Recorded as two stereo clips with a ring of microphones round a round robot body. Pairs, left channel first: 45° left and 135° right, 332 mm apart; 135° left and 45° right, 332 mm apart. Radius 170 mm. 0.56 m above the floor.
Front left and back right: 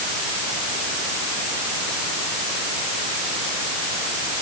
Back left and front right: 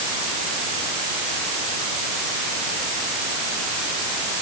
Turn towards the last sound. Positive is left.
No sound to turn to.